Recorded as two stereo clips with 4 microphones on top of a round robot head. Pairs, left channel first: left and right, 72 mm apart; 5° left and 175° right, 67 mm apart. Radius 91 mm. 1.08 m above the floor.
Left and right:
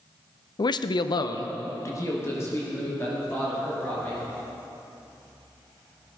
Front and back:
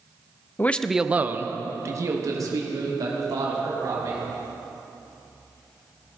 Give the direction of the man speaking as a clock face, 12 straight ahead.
10 o'clock.